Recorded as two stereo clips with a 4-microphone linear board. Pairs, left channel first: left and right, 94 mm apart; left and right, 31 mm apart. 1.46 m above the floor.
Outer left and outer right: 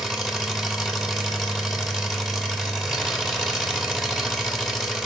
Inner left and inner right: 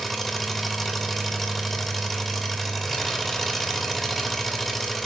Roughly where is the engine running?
Centre.